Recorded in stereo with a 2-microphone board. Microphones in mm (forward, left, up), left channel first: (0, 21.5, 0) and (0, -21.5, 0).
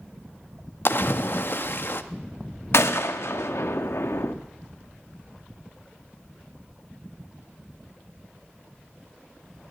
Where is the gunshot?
75° left (ahead or behind), 0.6 m.